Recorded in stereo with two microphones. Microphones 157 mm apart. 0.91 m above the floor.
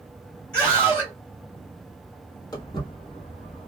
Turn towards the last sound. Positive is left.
turn(degrees=50)  # may be behind; listen again after turning